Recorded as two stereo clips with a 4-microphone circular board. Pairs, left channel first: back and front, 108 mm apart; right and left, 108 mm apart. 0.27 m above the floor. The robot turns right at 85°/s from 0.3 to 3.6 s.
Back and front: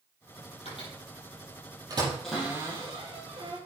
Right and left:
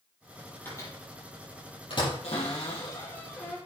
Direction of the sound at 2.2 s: 100° right.